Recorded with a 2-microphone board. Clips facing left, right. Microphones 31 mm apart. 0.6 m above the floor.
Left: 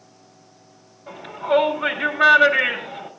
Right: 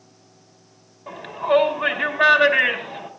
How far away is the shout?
About 5 m.